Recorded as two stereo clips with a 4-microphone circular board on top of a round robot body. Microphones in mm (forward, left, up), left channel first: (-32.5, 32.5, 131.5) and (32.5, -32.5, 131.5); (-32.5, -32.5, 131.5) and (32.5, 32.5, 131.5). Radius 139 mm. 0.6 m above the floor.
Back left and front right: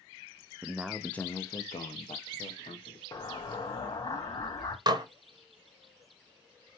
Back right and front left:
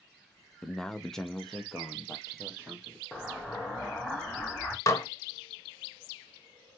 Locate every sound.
0.6 s a man speaking: 60° right, 0.6 m; by 3.0 s 135° left, 1.3 m
3.1 s an explosion: 135° left, 0.7 m
4.9 s dishes clattering: 80° right, 0.8 m